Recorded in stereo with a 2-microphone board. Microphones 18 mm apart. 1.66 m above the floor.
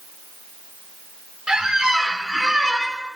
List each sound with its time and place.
1.5 s a squeak: 40° right (ahead or behind), 1.2 m